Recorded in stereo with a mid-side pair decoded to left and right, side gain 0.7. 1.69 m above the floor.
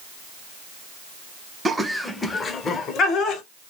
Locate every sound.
1.6 s laughter: 15° right, 0.6 m; by 3.4 s 50° left, 1.0 m